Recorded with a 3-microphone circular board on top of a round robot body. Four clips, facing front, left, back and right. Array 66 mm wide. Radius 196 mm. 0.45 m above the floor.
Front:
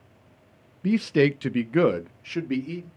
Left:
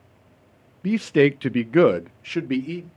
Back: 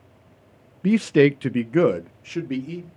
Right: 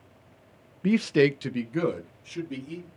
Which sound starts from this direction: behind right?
A man speaking, at 0.8 s.